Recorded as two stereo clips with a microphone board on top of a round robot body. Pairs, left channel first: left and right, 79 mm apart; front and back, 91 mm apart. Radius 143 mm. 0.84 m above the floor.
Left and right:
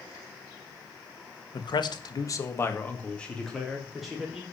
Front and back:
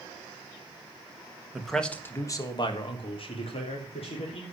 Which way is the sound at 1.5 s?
95° left.